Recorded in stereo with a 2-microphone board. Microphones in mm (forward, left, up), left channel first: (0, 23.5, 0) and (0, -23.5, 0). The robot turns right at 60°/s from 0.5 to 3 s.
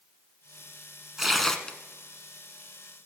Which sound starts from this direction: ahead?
Tearing paper, at 1.2 s.